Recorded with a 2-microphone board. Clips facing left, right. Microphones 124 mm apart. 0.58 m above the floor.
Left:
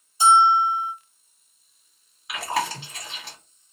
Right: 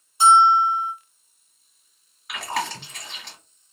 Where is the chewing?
5° left (ahead or behind), 1.4 m.